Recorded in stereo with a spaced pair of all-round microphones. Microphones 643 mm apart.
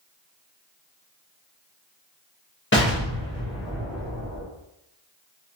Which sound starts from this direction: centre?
An explosion, at 2.7 s.